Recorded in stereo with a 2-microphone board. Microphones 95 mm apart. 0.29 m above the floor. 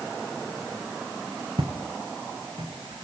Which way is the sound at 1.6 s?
60° right (ahead or behind).